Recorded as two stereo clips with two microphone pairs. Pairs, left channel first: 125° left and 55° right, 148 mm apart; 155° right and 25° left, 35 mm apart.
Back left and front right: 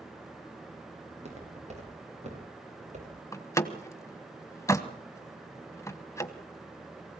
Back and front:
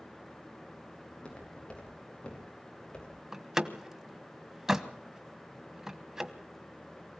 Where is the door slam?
80° left, 1.2 m.